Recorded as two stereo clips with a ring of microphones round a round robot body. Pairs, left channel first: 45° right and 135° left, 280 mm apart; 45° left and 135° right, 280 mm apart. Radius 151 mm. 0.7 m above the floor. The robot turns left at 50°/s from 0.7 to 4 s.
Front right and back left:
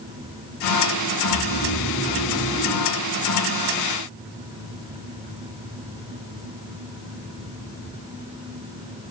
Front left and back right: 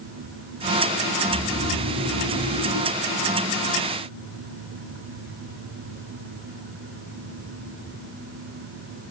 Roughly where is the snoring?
Ahead right.